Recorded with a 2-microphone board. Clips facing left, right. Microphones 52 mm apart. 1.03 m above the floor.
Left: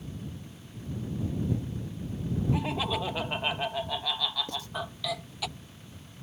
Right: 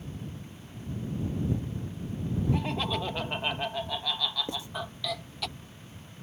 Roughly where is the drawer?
I don't hear a drawer.